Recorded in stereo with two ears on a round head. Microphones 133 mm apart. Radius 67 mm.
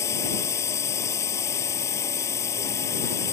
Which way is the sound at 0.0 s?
20° left (ahead or behind).